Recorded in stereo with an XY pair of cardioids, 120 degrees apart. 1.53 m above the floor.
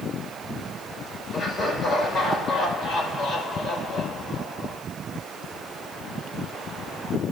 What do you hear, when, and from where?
1.3 s laughter: 35° left, 5.5 m